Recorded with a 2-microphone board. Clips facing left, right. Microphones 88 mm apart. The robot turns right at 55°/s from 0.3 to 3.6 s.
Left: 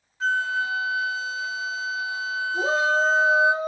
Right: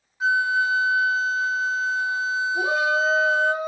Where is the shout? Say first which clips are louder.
Left 2 dB; 140° left, 4.5 m; by 3.7 s 165° right, 4.5 m.